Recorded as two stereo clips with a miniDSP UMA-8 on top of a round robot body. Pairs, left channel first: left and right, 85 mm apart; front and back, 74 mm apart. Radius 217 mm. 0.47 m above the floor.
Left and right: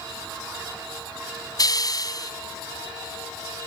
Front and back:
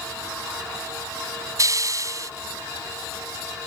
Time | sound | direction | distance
1.6 | a hiss | 135° left | ?